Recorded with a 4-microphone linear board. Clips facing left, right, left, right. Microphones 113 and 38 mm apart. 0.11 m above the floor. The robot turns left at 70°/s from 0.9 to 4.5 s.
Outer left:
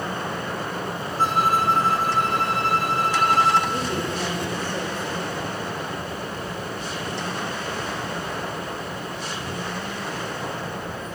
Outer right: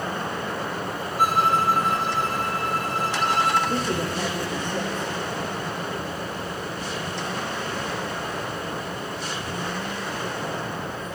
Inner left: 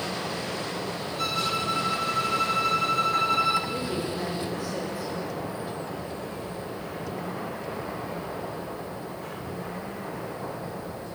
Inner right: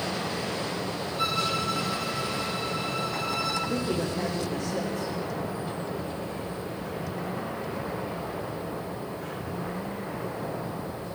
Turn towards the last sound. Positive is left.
turn(degrees=175)